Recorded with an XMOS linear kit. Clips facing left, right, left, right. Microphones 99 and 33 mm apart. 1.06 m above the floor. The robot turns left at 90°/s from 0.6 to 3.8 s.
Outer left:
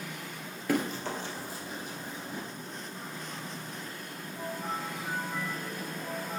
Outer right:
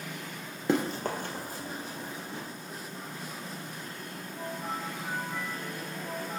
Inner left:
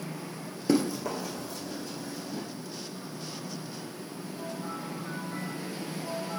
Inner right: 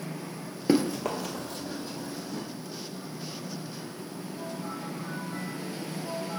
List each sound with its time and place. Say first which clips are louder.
0.7 s running footsteps: outer right 2 dB, inner right 2 dB; 25° right (ahead or behind), 1.2 m; by 2.4 s 15° left (ahead or behind), 3 m